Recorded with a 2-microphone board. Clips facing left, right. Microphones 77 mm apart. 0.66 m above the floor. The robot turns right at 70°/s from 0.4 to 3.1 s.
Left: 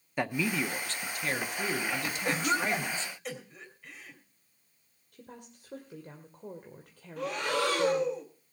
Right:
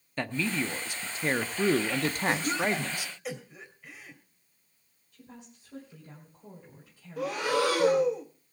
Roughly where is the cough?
Left.